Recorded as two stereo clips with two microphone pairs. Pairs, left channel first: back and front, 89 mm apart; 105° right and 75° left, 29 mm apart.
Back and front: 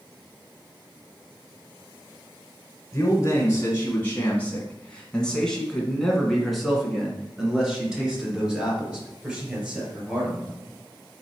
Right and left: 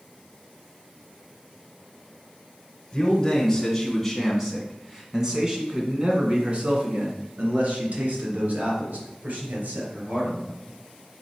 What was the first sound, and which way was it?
A man speaking, 155° right.